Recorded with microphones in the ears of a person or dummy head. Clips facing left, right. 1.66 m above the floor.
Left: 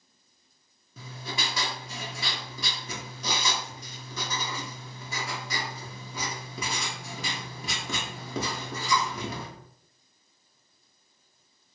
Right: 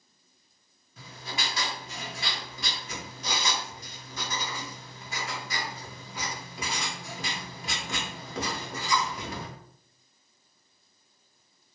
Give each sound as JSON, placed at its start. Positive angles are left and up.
{"t": 1.0, "sound": "writing", "side_deg": 85, "distance_m": 1.0}